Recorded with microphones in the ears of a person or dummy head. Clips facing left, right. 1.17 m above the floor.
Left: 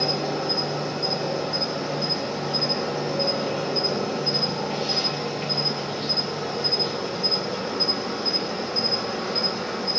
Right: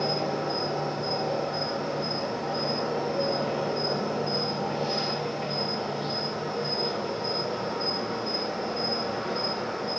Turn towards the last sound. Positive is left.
turn(degrees=60)  # may be behind; listen again after turning